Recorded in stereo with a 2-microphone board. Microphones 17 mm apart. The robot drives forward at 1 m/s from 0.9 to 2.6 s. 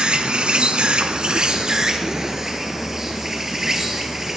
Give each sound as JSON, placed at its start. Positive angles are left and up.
{"t": 0.0, "sound": "an insect", "side_deg": -70, "distance_m": 1.0}